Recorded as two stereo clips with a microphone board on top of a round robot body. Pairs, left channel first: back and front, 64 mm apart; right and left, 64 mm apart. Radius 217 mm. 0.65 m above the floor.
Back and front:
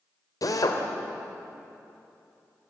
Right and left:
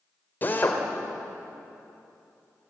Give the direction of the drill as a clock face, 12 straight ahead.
5 o'clock.